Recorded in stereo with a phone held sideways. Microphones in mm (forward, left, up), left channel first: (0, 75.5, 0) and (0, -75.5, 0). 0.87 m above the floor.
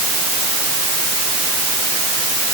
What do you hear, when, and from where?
Only background noise.